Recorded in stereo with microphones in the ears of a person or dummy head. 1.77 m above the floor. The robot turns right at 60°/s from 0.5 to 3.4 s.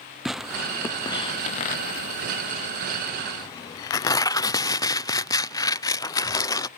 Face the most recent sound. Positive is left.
turn(degrees=10)  # may be behind; listen again after turning